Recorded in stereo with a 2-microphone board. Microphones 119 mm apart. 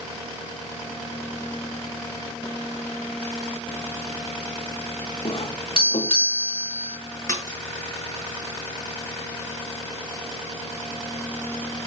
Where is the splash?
30° left (ahead or behind), 7 m.